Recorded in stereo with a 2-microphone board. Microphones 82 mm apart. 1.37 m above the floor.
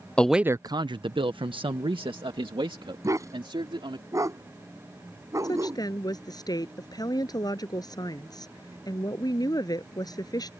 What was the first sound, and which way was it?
A man speaking, 15° left (ahead or behind).